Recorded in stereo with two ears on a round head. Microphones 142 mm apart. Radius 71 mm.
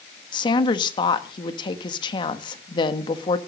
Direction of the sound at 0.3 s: 30° left (ahead or behind).